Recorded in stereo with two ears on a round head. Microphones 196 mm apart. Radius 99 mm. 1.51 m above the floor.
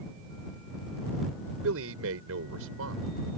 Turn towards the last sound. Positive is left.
turn(degrees=-75)  # may be behind; listen again after turning